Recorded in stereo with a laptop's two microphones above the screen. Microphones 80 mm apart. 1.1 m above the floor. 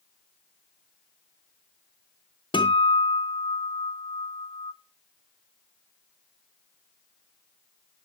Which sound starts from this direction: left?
A guitar, at 2.5 s.